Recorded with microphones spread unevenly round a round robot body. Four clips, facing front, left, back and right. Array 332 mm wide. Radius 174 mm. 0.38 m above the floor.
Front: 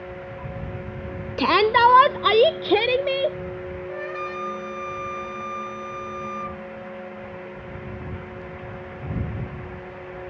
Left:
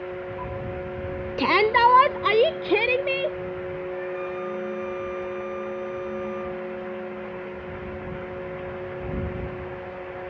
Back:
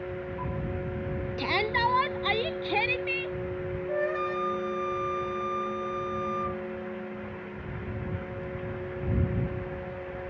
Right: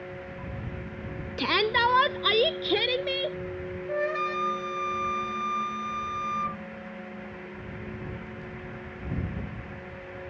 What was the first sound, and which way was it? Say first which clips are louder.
A shout: left 7 dB, front 12 dB; 25° left.